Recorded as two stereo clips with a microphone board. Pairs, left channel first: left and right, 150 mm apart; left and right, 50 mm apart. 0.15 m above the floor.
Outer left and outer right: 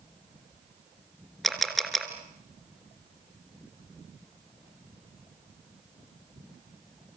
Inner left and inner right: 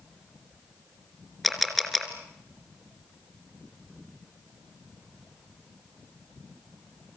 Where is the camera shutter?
Centre (ahead or behind), 2.5 m.